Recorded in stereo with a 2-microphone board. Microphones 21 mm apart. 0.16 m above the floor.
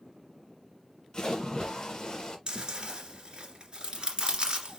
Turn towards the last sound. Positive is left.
turn(degrees=-45)  # may be behind; listen again after turning